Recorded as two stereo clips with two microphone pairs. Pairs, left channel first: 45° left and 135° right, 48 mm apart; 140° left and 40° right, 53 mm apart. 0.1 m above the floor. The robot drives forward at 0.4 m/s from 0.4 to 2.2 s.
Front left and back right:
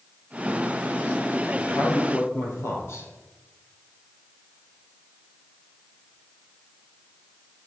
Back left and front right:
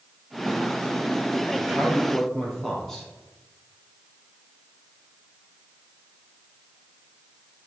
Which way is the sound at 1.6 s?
55° left.